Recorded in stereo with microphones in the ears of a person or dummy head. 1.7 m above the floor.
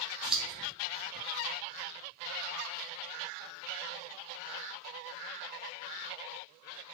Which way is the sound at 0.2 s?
Centre (ahead or behind).